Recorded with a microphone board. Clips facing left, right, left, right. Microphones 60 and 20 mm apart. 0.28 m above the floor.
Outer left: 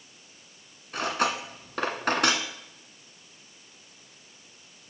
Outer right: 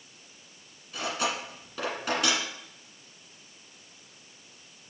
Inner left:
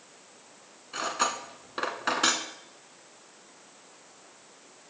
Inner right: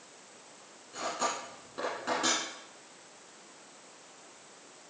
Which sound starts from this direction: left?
Cutlery clinking, at 0.9 s.